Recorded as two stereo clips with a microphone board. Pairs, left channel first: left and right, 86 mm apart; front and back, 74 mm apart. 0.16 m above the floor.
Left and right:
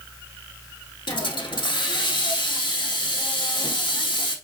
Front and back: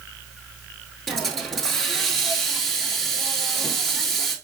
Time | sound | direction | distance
1.1 | a hiss | 85° left | 0.9 m